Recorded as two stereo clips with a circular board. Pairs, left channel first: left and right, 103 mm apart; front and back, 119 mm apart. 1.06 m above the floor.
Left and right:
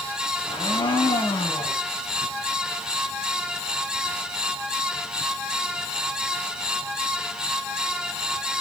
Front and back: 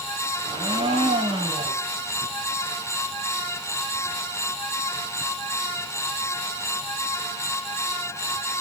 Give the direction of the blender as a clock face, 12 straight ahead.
8 o'clock.